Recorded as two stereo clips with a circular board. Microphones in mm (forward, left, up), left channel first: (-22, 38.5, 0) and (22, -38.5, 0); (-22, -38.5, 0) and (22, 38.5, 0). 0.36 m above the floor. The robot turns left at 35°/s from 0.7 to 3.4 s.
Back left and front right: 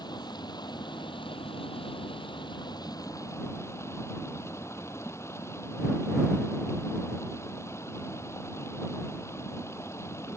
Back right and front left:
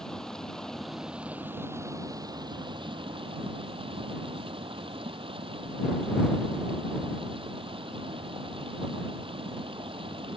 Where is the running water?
155° left; by 10.4 s 60° left.